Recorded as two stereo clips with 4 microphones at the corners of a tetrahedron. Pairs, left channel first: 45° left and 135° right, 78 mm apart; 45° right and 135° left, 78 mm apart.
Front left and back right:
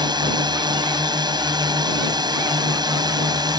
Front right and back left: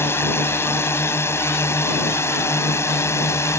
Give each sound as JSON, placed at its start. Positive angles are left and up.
{"t": 0.0, "sound": "a drone", "azimuth_deg": -105}